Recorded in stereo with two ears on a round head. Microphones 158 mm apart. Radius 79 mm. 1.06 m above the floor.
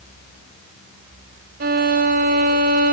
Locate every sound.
1.6 s a violin: 50° right (ahead or behind), 1.0 m